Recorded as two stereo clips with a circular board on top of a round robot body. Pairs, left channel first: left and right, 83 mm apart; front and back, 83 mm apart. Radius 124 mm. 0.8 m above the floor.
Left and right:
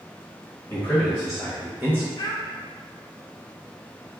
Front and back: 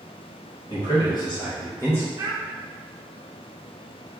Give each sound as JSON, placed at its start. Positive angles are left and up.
{"t": 0.7, "sound": "a man speaking", "azimuth_deg": 25, "distance_m": 1.3}
{"t": 2.2, "sound": "a child speaking", "azimuth_deg": 130, "distance_m": 0.5}